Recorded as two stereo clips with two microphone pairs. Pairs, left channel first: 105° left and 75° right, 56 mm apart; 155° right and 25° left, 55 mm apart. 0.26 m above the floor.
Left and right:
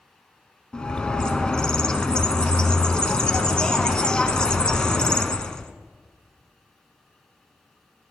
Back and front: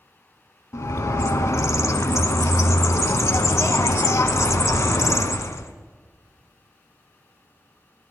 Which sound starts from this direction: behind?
A bird, at 0.7 s.